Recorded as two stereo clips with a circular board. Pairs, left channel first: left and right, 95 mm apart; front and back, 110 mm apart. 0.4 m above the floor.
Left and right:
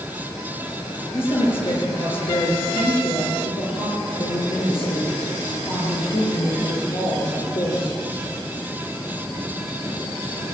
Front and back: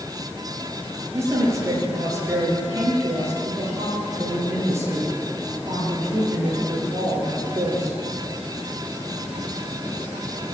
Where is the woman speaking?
115° left, 8.5 m.